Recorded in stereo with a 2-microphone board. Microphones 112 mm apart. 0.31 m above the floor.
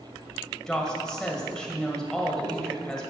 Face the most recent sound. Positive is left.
turn(degrees=5)  # may be behind; listen again after turning